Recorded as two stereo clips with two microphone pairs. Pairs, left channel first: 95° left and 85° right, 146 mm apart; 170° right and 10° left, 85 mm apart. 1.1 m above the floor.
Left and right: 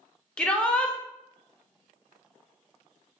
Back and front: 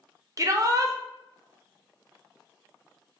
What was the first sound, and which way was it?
A shout, 25° left.